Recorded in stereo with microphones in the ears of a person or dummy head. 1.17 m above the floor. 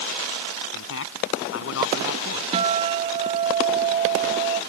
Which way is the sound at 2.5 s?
30° right (ahead or behind).